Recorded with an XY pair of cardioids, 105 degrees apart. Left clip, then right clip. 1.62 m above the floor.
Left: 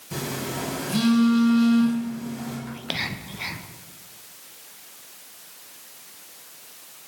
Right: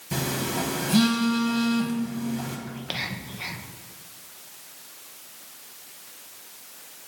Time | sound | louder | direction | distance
0.1 | a phone buzzing | right 2 dB | 30° right | 1.7 m
2.7 | whispering | left 4 dB | 25° left | 0.7 m